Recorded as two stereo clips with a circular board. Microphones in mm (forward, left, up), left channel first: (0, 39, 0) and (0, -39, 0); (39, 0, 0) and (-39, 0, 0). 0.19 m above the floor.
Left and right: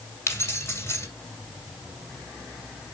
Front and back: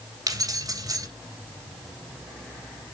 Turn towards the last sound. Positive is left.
turn(degrees=145)